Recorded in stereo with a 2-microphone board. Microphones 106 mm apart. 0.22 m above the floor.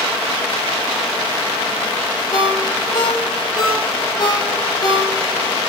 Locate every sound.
2.3 s a ringtone: 40° left (ahead or behind), 4.5 m